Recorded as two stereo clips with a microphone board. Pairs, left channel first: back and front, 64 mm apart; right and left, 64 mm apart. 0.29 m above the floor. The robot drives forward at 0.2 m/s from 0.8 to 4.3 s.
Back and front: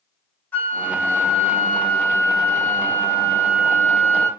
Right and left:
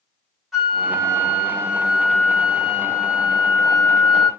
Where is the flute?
170° left, 1.6 m; by 4.3 s 175° left, 2 m.